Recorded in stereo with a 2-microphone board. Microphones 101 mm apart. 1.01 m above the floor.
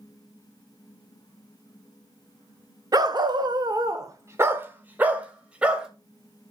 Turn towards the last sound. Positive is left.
turn(degrees=-10)  # may be behind; listen again after turning